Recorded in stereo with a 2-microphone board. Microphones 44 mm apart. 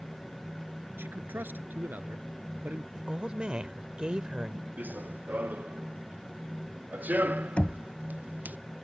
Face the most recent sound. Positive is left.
turn(degrees=30)  # may be behind; listen again after turning